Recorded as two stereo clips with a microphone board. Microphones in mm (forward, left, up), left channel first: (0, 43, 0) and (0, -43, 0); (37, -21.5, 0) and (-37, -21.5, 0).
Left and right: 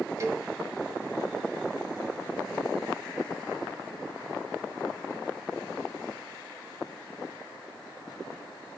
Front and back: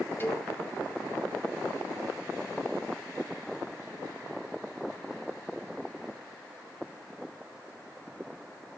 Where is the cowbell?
50° right, 1.5 m.